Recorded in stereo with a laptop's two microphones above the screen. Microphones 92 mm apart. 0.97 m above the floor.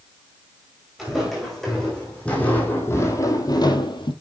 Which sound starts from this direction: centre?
Footsteps, at 1.0 s.